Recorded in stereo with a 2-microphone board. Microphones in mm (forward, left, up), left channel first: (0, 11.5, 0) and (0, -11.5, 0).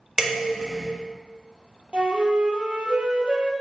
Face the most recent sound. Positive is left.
turn(degrees=-55)  # may be behind; listen again after turning